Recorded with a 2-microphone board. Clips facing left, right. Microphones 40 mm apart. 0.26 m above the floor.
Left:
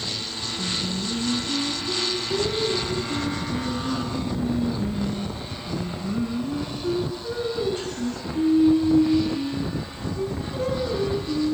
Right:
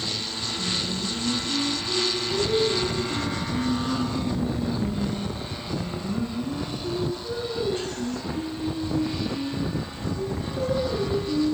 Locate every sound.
0.6 s singing: 20° left (ahead or behind), 3 m